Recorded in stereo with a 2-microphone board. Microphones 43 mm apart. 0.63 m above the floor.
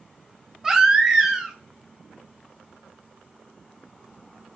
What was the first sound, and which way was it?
A baby crying, 15° right (ahead or behind).